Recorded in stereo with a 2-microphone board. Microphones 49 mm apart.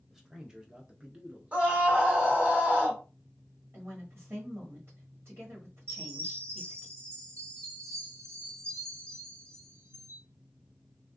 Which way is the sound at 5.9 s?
70° right (ahead or behind).